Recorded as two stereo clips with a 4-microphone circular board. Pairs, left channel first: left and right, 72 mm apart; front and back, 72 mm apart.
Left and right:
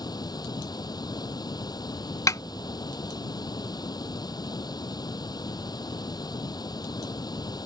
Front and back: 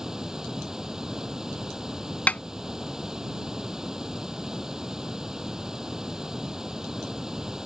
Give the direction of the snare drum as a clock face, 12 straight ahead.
10 o'clock.